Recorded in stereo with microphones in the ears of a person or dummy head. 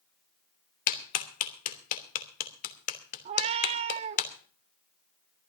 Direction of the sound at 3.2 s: 25° right (ahead or behind).